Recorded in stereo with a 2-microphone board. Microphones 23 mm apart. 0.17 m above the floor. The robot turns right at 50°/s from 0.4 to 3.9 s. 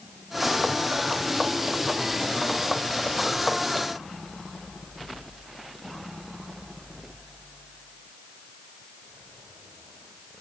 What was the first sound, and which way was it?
Only background noise.